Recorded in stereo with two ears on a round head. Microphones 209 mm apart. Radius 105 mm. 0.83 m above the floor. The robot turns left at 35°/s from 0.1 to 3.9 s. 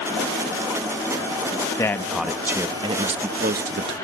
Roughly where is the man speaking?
Ahead.